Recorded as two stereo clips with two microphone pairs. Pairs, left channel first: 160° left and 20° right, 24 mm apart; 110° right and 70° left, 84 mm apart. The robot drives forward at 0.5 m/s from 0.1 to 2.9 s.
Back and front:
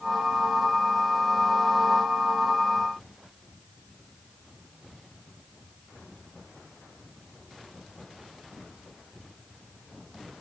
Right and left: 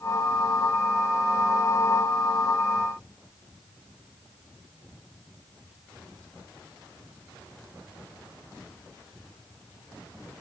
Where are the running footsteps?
No running footsteps in this recording.